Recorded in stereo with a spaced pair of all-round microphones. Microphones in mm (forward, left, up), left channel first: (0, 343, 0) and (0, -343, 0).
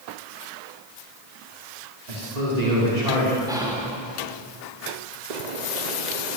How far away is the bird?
About 1.3 m.